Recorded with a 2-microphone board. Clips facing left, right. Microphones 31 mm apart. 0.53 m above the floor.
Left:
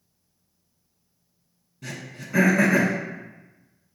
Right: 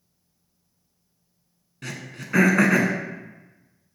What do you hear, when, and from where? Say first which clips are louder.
1.8 s throat clearing: right 1 dB; 60° right (ahead or behind), 0.8 m